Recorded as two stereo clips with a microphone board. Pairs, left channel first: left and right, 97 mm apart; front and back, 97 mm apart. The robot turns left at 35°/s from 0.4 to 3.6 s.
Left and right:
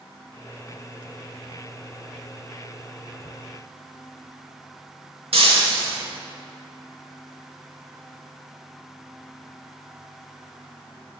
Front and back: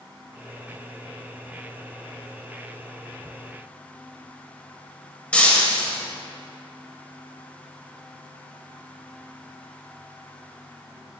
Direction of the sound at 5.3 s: 75° right.